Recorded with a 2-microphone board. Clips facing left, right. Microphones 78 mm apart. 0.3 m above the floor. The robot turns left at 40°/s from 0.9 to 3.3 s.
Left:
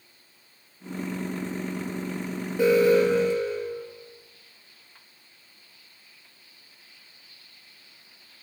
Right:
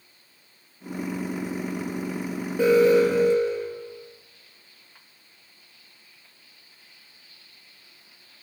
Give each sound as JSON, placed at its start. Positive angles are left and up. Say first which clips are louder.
{"t": 2.6, "sound": "an alarm", "louder": "right 2 dB", "side_deg": -15, "distance_m": 9.0}